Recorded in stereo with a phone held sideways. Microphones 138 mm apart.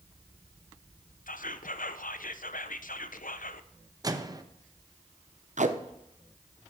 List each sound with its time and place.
1.3 s whispering: 80° left, 0.6 m
4.0 s a microwave: 25° right (ahead or behind), 0.6 m
5.6 s tape being pulled: 60° right (ahead or behind), 0.6 m